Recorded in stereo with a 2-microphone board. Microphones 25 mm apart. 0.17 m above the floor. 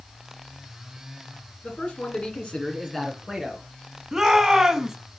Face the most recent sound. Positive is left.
turn(degrees=-20)  # may be behind; listen again after turning